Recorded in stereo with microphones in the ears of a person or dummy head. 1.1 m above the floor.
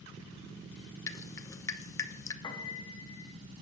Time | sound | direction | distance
1.1 | dripping | 15° left (ahead or behind) | 0.5 m
2.4 | a piano | 25° left (ahead or behind) | 0.8 m